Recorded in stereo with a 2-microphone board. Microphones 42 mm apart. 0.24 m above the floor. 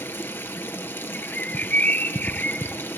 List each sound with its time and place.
0.0 s running water: 75° left (ahead or behind), 1.6 m
1.1 s a bird: 45° left (ahead or behind), 0.9 m